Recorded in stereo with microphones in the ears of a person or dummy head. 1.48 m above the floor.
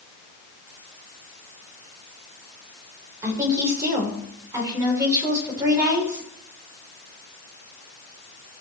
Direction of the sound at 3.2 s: 20° right (ahead or behind).